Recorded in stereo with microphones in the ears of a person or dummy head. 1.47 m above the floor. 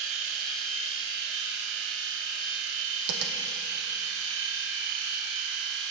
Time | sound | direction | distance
0.0 | a machine running | 70° right (ahead or behind) | 1.0 m
3.1 | tapping | 65° right (ahead or behind) | 0.9 m